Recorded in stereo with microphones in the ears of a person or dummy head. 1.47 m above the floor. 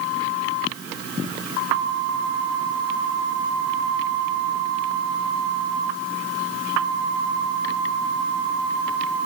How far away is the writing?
I don't hear writing.